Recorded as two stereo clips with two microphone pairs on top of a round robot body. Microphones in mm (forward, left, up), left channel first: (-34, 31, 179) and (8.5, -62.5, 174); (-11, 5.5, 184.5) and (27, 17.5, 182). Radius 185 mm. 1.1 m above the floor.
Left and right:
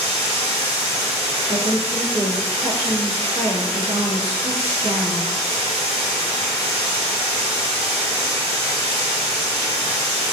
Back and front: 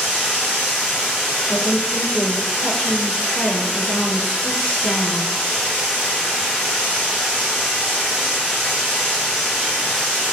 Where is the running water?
85° right, 1.2 m.